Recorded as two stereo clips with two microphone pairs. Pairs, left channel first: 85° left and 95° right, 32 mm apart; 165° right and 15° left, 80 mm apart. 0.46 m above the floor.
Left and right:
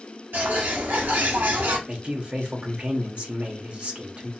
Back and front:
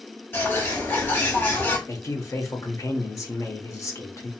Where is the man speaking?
135° right, 1.0 m.